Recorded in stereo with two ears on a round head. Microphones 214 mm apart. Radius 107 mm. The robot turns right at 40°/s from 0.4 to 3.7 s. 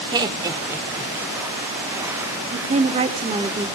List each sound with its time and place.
0.1 s laughter: 15° right (ahead or behind), 1.1 m; by 1.1 s centre (ahead or behind), 1.1 m
2.5 s a woman speaking: 75° right, 1.0 m; by 3.7 s 30° right, 1.0 m